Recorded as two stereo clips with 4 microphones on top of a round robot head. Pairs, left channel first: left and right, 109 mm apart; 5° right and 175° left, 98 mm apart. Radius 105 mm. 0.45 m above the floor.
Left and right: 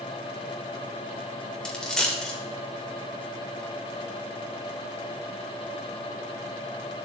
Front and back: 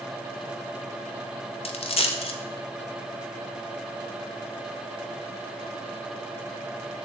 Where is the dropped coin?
5° left, 0.9 m.